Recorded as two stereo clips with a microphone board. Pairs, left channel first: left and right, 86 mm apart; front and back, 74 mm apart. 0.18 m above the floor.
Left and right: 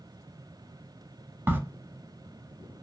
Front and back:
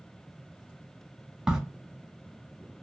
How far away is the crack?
About 0.6 m.